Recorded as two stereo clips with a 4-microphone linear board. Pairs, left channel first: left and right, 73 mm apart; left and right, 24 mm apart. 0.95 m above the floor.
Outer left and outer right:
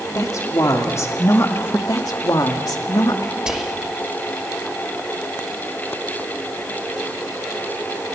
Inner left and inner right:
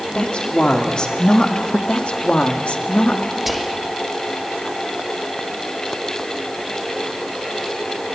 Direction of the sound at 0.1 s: 50° left (ahead or behind).